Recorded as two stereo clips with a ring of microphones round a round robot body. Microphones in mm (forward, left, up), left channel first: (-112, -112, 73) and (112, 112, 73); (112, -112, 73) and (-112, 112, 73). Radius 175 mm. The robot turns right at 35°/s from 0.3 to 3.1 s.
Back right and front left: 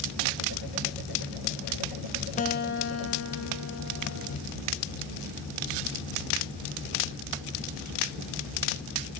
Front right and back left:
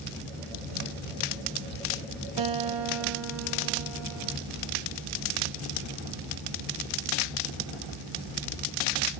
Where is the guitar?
155° left, 1.6 m; by 4.4 s straight behind, 1.6 m.